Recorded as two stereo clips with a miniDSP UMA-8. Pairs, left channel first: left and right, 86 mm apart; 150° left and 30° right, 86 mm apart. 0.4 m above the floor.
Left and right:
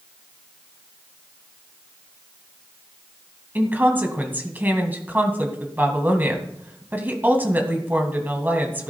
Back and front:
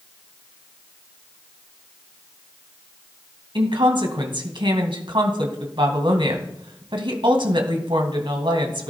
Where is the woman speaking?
25° right, 2.5 m.